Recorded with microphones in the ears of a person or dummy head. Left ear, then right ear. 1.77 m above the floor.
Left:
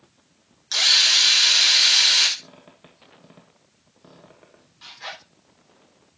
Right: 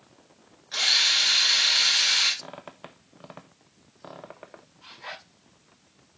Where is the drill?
80° left, 6.5 m.